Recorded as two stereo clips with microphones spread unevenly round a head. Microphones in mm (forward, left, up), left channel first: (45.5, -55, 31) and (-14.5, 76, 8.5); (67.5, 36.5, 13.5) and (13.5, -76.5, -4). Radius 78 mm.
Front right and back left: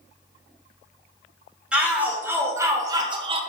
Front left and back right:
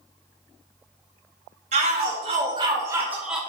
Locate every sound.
1.7 s a shout: 165° right, 1.6 m; by 3.4 s 160° left, 0.8 m